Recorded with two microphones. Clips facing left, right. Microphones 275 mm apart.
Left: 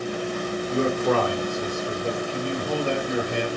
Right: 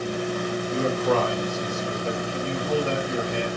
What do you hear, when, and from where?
0.7 s a man speaking: 70° left (ahead or behind), 2.0 m